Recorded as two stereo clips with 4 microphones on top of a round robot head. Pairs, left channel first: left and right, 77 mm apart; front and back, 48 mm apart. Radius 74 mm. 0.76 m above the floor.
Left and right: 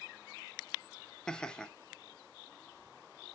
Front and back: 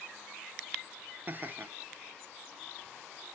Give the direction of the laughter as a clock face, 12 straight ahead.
6 o'clock.